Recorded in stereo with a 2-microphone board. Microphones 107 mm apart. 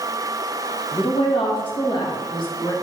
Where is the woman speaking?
60° left (ahead or behind), 1.5 m; by 2.7 s 40° left (ahead or behind), 2 m.